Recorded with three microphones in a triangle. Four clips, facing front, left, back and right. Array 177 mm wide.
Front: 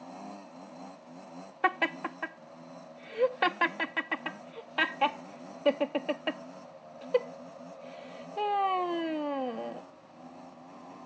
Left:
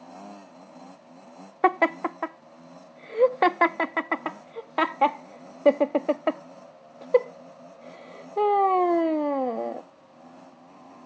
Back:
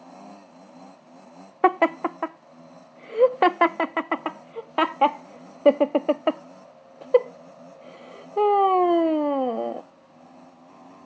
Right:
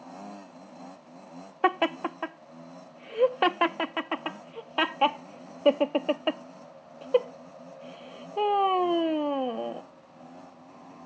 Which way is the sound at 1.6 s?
170° left.